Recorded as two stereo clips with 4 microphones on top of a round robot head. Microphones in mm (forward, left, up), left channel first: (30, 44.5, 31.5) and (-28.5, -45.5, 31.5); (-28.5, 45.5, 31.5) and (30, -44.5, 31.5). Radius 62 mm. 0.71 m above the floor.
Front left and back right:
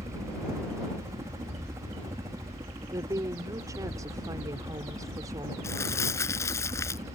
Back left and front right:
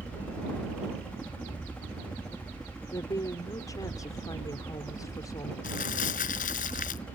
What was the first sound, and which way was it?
A helicopter, 165° right.